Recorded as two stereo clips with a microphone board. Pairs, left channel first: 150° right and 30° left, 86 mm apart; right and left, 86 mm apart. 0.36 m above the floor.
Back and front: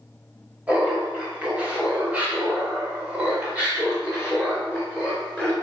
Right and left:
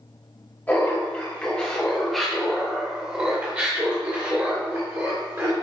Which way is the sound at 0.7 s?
35° right.